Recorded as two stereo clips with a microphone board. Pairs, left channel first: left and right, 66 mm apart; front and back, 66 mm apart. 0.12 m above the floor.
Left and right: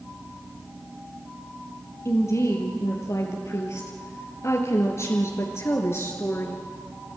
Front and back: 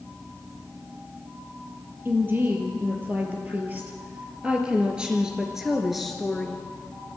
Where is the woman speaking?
125° left, 3.5 m; by 6.6 s 80° left, 1.8 m.